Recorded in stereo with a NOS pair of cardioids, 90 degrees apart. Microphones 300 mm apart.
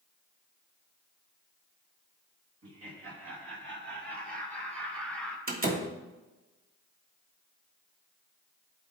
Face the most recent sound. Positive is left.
turn(degrees=-30)